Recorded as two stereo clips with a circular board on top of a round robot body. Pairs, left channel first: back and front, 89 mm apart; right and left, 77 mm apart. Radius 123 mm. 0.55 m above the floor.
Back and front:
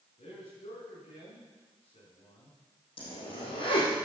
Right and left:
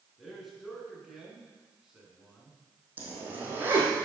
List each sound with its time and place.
0.2 s a man speaking: straight behind, 7 m; by 2.6 s 170° left, 6 m
3.0 s a zipper: 155° left, 5 m